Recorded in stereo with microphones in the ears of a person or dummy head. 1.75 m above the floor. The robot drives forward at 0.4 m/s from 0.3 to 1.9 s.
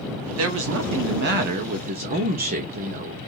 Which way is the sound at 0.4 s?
85° right.